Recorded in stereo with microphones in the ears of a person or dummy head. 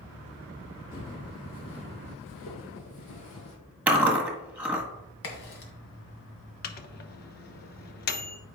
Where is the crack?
70° left (ahead or behind), 2 m.